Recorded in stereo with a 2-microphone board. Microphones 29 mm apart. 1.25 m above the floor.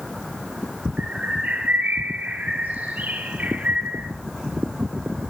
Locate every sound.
1.0 s a bird: 60° right (ahead or behind), 8.5 m